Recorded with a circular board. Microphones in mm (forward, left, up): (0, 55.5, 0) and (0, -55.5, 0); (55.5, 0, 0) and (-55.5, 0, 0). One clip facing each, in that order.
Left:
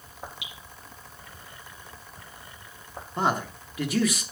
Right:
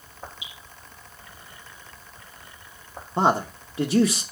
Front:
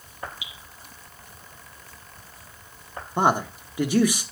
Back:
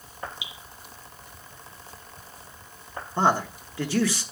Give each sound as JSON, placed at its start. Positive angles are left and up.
{"t": 0.4, "sound": "dripping", "azimuth_deg": 110, "distance_m": 3.0}
{"t": 3.2, "sound": "a man speaking", "azimuth_deg": -60, "distance_m": 0.9}